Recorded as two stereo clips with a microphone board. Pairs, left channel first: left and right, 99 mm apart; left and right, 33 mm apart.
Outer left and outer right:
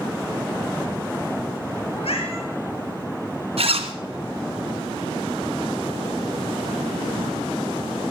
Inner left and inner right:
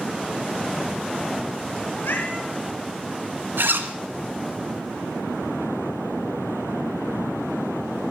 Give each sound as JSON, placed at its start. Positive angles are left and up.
{"t": 1.9, "sound": "a cat meowing", "side_deg": 75, "distance_m": 3.5}
{"t": 3.6, "sound": "a zipper", "side_deg": -80, "distance_m": 1.8}